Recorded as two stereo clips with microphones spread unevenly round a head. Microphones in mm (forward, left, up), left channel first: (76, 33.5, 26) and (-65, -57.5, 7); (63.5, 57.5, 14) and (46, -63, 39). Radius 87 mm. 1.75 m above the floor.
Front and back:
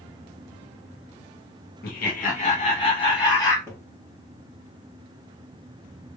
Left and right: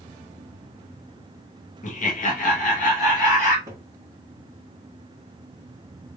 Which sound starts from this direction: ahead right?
A cupboard door, at 3.7 s.